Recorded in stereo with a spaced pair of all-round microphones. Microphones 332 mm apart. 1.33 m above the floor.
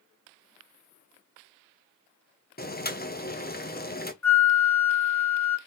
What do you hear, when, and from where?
2.6 s boiling: 30° left (ahead or behind), 0.6 m
4.2 s a flute: 55° left (ahead or behind), 0.6 m